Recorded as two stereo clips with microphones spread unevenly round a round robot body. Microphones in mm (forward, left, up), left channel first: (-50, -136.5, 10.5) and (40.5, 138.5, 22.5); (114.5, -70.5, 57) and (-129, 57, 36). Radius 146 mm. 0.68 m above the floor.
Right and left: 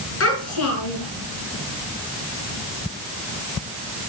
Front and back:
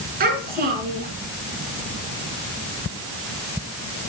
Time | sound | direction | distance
0.2 | a child speaking | 150° right | 6 m